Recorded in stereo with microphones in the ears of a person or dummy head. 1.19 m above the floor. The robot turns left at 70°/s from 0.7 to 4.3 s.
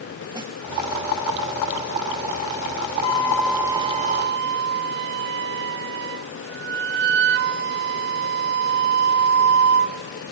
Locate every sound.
0.3 s a snare drum: 25° right (ahead or behind), 2.5 m
3.0 s a flute: 30° left, 1.7 m; by 10.0 s 60° right, 1.7 m